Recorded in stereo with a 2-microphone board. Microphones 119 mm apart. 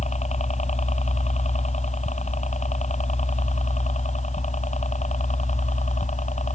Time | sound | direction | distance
0.0 | a helicopter | 65° left (ahead or behind) | ?